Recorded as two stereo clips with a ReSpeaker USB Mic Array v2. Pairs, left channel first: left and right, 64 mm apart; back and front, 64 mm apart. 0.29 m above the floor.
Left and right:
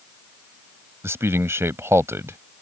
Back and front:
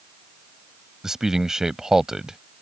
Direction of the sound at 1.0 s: 80° right.